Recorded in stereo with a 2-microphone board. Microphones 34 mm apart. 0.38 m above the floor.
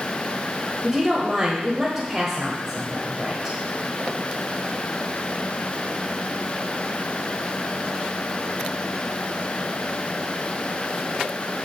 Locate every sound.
0.8 s a woman speaking: 20° right (ahead or behind), 1.3 m